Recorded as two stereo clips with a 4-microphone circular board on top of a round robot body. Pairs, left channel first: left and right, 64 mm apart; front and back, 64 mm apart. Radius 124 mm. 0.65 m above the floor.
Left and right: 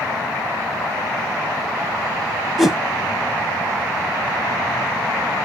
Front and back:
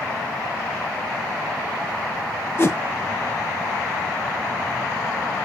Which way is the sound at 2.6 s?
10° right.